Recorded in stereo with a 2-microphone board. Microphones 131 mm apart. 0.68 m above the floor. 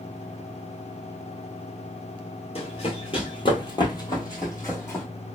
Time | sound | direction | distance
2.5 | running footsteps | 50° left (ahead or behind) | 0.9 m